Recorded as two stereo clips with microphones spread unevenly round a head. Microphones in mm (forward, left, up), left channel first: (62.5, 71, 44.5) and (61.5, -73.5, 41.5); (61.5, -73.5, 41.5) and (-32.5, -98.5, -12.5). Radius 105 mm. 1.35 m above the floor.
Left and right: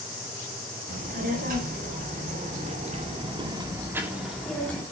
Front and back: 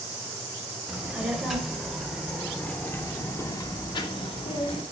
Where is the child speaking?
80° right, 5.5 m; by 4.8 s 15° left, 3 m.